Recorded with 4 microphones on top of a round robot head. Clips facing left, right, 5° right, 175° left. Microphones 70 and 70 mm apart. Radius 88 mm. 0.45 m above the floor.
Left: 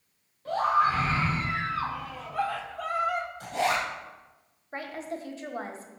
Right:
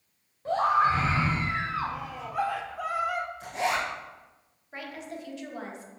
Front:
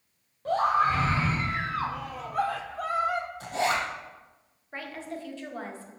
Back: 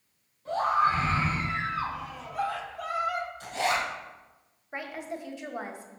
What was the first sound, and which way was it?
A scream, 25° right.